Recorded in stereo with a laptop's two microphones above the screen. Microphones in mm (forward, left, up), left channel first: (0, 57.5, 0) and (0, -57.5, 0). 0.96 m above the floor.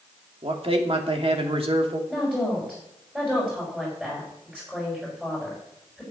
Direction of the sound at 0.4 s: 50° right (ahead or behind).